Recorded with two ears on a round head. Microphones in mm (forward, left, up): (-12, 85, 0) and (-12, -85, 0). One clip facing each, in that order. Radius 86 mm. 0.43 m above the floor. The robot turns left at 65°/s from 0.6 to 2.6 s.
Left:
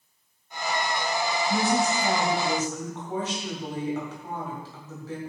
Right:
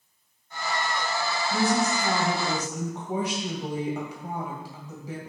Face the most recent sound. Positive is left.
turn(degrees=-15)